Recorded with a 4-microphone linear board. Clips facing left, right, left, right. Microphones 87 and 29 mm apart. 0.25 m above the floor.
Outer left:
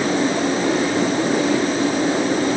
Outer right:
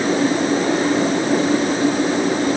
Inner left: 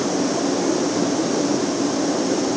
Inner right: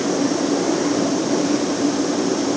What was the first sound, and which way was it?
Only background noise.